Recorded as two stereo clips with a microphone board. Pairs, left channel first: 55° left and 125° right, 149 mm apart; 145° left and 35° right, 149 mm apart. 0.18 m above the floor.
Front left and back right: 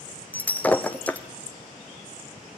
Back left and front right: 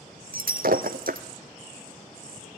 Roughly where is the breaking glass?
Ahead right.